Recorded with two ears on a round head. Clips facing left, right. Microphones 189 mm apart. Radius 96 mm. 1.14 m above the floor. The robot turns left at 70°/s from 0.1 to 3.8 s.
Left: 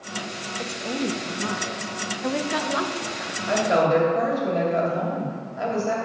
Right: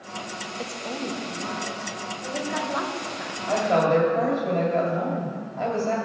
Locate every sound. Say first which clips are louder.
0.6 s a woman speaking: left 5 dB; 5° right (ahead or behind), 0.8 m; by 3.4 s 10° right (ahead or behind), 0.8 m
3.5 s a woman speaking: left 1 dB; 30° left (ahead or behind), 2 m; by 6.0 s 10° left (ahead or behind), 2 m